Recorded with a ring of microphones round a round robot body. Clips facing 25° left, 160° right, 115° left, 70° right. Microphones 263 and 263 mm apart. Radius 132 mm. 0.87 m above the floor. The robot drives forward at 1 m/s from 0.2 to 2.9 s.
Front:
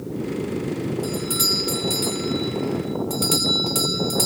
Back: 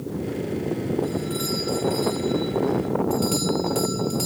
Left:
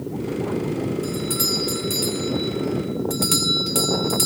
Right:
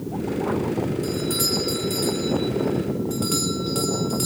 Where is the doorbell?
35° left, 3 m; by 4.3 s 70° left, 1.9 m.